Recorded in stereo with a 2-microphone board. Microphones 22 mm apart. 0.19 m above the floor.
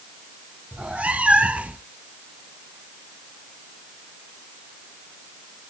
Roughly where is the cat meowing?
Right.